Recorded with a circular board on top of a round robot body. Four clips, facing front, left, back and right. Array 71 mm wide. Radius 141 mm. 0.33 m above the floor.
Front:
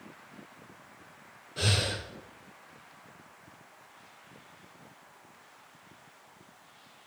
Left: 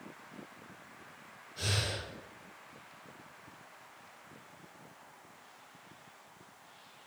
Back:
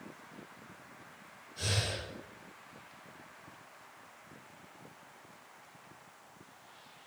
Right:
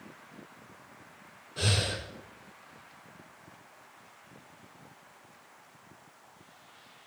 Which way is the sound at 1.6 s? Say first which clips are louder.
Right 5 dB, front 5 dB; 40° right.